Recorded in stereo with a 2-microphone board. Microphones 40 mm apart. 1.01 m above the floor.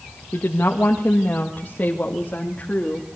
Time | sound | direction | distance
0.3 | a woman speaking | 60° left (ahead or behind) | 1.4 m